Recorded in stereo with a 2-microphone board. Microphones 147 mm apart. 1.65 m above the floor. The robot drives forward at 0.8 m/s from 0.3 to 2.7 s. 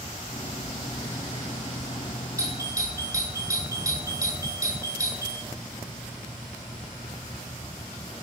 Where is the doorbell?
25° right (ahead or behind), 9.5 m.